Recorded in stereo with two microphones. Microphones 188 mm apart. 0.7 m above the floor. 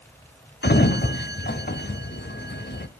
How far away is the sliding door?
About 0.8 m.